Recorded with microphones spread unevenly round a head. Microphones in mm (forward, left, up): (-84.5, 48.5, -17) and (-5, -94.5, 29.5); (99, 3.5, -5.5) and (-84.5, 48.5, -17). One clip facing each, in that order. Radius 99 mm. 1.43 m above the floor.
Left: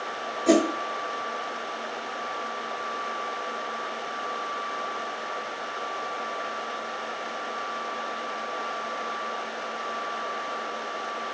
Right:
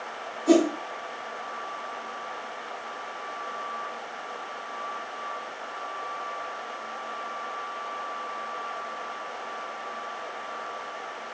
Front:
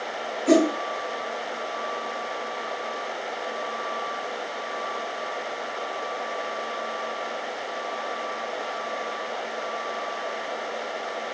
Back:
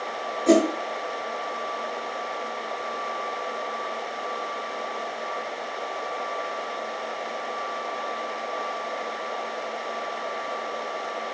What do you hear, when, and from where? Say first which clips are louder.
0.5 s a whoosh: right 1 dB, even; 130° left, 1.9 m